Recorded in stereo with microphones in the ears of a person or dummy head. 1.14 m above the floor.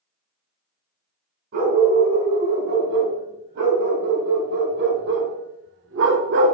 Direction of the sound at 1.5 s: 50° right (ahead or behind).